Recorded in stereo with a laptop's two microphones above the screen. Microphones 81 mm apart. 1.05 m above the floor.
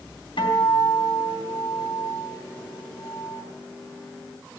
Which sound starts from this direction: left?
A guitar, at 0.4 s.